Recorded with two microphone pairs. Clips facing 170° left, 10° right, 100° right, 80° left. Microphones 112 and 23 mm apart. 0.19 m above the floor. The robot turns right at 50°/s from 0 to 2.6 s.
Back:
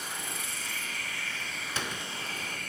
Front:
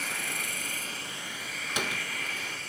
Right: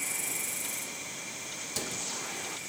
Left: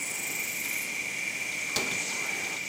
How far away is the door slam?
About 1.4 m.